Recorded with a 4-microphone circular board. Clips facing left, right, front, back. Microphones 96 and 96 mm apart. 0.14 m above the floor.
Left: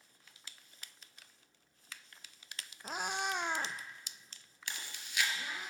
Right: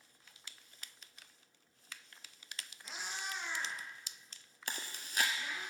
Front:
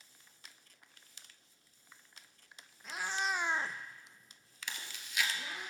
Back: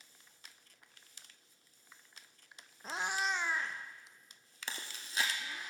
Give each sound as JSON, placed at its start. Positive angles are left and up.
{"t": 2.8, "sound": "a cat meowing", "azimuth_deg": 130, "distance_m": 0.6}
{"t": 4.7, "sound": "chewing", "azimuth_deg": -130, "distance_m": 0.8}